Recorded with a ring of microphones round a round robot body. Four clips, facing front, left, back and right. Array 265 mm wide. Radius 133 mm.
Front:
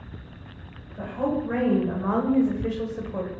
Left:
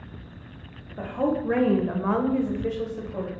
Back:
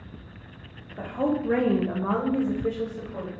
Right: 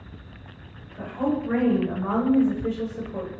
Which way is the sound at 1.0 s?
130° left.